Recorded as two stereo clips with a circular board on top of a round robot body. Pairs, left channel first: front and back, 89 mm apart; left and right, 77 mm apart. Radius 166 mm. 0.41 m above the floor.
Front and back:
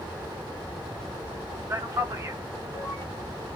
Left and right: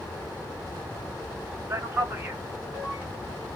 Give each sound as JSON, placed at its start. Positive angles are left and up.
{"t": 1.7, "sound": "a man speaking", "azimuth_deg": -135, "distance_m": 1.4}